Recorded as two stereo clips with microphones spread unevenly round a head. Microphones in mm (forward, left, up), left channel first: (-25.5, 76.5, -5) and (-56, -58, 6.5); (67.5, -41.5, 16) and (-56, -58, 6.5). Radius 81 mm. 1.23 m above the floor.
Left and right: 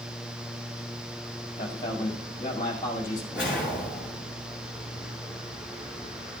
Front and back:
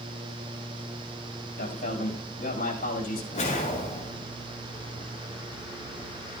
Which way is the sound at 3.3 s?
20° right.